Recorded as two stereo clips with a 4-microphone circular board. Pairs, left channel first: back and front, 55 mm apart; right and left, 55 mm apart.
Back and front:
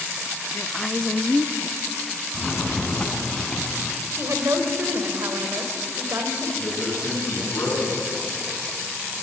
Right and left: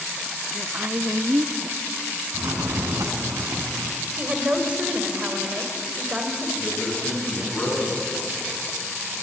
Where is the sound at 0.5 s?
105° left, 0.9 m.